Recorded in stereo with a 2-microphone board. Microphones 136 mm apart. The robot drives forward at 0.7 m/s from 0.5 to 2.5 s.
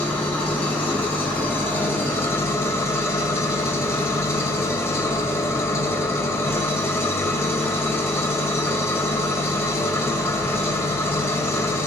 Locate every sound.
0.0 s an engine running: 10° left (ahead or behind), 3.5 m; by 11.9 s 20° left (ahead or behind), 2 m